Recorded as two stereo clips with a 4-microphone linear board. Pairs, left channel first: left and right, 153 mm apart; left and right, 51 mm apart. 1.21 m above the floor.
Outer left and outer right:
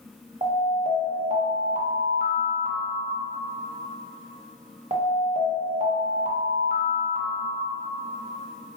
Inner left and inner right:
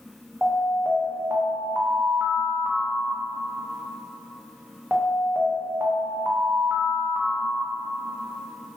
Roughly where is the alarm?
Right.